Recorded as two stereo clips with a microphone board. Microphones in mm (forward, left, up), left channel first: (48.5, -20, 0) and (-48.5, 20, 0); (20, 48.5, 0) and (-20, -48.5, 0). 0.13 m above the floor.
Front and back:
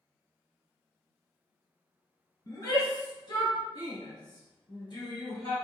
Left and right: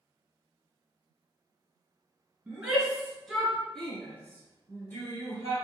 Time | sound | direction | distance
2.5 | a shout | 45° right | 1.6 m